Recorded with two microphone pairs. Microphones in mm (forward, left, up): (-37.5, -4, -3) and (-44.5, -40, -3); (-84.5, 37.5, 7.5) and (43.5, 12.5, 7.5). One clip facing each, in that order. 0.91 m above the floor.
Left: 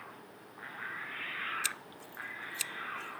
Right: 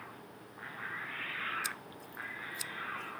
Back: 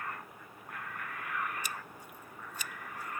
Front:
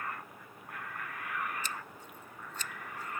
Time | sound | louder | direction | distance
1.6 | scissors | left 2 dB, front 1 dB | 90° left | ?